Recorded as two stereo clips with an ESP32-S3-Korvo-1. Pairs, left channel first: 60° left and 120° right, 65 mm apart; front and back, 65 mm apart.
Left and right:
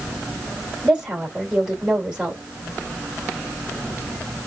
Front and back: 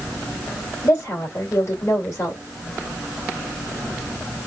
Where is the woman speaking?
45° right, 2.5 m.